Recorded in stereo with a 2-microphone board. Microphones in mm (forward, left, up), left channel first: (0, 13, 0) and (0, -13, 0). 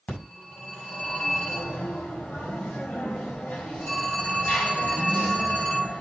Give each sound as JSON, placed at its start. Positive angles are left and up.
{"t": 0.1, "sound": "a phone ringing", "side_deg": 90, "distance_m": 5.0}